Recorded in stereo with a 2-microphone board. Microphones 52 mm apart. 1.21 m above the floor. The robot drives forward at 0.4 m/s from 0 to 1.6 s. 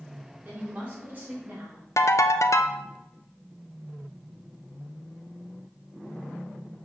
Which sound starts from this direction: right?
A woman speaking, at 0.4 s.